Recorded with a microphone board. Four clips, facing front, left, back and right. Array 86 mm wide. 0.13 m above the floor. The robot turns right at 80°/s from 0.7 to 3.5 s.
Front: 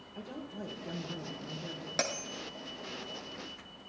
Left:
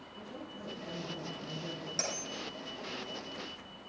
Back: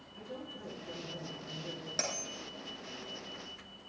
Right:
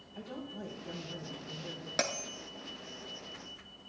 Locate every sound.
0.1 s a woman speaking: 15° right, 3 m; by 1.9 s 80° left, 3 m
2.0 s a bell: 60° right, 1.2 m; by 2.3 s 35° right, 1.2 m